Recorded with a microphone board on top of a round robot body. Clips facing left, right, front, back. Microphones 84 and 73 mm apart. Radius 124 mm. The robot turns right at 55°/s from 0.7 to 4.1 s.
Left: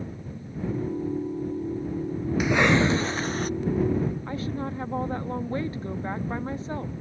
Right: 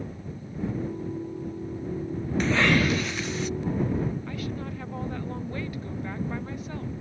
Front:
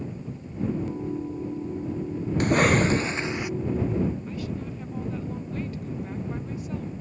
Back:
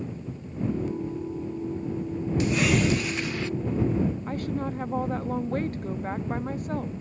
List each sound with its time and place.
2.4 s a cough: 10° left; by 3.5 s 70° left
4.3 s a woman speaking: 145° left